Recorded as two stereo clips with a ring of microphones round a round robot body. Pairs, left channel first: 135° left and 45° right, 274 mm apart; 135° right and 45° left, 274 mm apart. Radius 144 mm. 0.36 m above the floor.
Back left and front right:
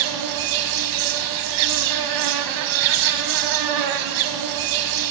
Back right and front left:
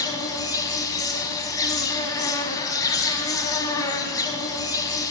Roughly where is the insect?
Ahead right.